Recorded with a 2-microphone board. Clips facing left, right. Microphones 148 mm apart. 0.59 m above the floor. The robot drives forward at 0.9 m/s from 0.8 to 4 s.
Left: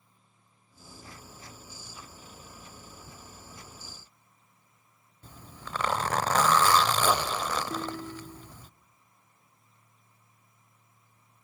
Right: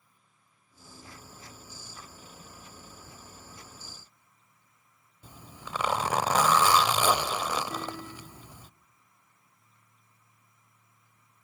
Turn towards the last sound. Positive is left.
turn(degrees=25)  # may be behind; listen again after turning